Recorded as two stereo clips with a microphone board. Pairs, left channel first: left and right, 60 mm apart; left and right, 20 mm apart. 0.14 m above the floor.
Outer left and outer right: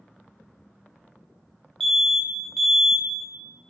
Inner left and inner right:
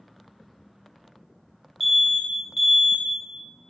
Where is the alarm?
5° left (ahead or behind), 1.0 m.